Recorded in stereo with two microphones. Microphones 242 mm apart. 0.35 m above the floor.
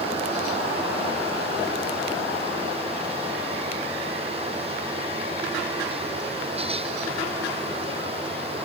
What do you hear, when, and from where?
Only background noise.